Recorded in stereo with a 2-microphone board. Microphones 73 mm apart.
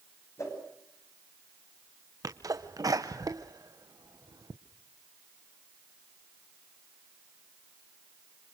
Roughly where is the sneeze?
Right.